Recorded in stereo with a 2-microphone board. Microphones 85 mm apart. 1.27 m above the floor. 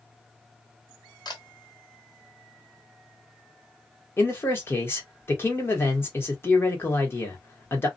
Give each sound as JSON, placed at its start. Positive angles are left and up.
{"t": 1.2, "sound": "a camera shutter", "side_deg": 55, "distance_m": 1.1}
{"t": 4.2, "sound": "a man speaking", "side_deg": 30, "distance_m": 1.1}